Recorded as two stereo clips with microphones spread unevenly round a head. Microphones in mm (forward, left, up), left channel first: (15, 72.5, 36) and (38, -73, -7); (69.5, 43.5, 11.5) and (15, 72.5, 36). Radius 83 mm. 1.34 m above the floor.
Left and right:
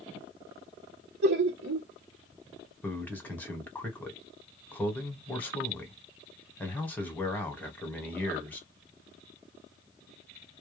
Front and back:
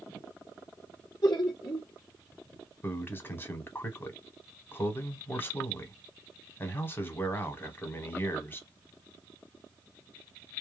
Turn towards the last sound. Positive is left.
turn(degrees=15)